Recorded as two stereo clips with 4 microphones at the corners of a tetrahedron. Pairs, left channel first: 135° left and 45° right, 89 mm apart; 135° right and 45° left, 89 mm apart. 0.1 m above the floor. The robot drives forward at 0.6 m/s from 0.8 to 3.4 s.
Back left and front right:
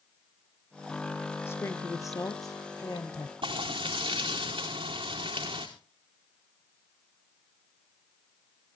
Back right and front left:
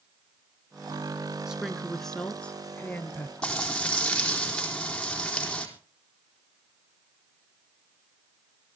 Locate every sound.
1.5 s a woman speaking: 120° left, 1.2 m; by 3.3 s 160° left, 1.8 m
3.4 s frying: 55° right, 4 m